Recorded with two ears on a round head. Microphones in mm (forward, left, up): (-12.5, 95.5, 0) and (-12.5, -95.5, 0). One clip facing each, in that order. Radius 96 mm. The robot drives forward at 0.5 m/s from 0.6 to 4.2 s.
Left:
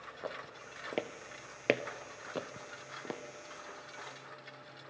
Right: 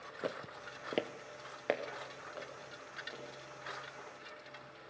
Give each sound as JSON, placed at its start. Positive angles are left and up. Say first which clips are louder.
{"t": 0.2, "sound": "footsteps", "louder": "right 3 dB", "side_deg": -35, "distance_m": 1.8}